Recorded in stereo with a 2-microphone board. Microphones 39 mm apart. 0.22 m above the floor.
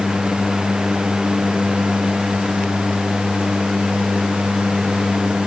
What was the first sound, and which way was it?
Only background noise.